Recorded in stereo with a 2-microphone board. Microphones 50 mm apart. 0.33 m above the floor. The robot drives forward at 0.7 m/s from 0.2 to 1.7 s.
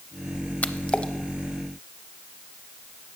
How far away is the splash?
About 0.6 m.